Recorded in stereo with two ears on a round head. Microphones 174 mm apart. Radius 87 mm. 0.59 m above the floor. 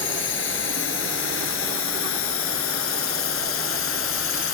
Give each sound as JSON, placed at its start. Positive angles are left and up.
{"t": 0.0, "sound": "a drone", "side_deg": 70}